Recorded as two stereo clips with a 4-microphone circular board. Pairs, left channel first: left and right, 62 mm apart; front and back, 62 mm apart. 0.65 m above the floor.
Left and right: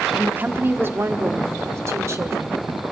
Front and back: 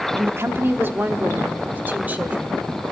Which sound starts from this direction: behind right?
A woman speaking, at 0.2 s.